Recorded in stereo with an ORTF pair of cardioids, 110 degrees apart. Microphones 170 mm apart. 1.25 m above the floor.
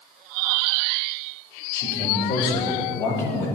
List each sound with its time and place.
1.7 s a man speaking: 55° left, 7 m; by 3.5 s 70° left, 8.5 m